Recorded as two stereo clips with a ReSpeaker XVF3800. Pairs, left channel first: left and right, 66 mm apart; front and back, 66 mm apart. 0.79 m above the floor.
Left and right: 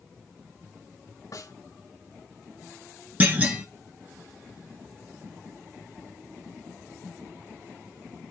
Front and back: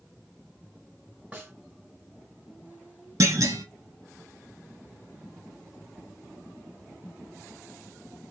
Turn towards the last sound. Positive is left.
turn(degrees=-155)